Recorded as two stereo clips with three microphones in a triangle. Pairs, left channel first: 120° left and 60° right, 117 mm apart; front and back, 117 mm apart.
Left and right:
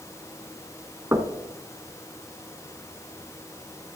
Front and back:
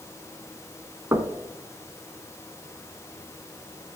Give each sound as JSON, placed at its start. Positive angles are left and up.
{"t": 1.1, "sound": "knocking", "azimuth_deg": -120, "distance_m": 1.0}